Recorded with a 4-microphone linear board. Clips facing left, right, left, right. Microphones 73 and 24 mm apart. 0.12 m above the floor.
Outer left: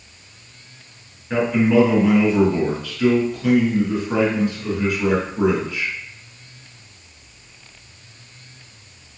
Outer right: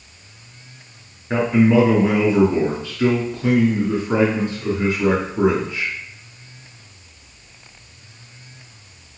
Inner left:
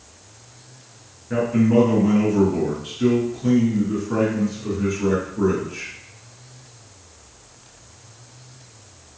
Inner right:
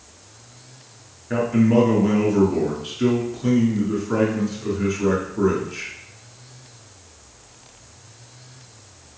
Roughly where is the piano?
I don't hear a piano.